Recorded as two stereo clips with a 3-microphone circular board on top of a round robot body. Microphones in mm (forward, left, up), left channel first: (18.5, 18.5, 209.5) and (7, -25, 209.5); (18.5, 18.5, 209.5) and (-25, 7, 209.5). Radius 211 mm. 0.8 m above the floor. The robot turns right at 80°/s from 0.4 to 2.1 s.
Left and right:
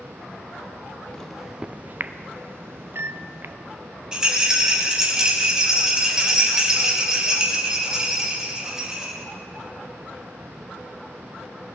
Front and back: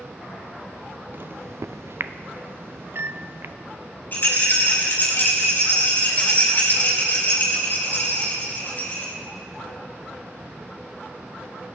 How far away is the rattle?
About 5.5 m.